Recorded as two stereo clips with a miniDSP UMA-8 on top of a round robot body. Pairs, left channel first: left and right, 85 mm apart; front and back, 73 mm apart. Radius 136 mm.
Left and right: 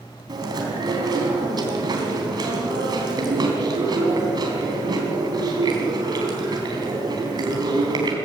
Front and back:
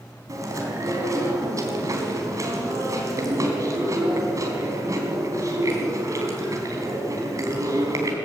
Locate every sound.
0.3 s chewing: 130° right, 3.5 m